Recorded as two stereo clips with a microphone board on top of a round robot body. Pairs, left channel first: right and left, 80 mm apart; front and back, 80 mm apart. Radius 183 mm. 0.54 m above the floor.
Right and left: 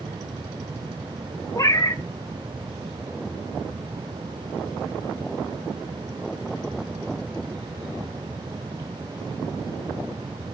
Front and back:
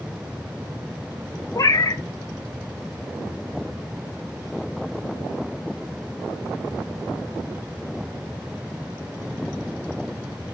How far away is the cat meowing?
About 1.4 m.